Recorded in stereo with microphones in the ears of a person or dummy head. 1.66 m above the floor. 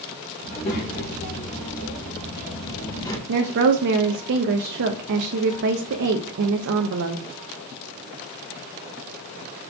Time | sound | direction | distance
0.4 | a child speaking | 45° left (ahead or behind) | 2 m
3.3 | a woman speaking | 55° right (ahead or behind) | 0.5 m